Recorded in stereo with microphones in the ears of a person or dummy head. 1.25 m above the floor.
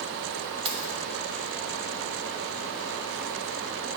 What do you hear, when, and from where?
0.7 s keys jangling: 30° right (ahead or behind), 0.7 m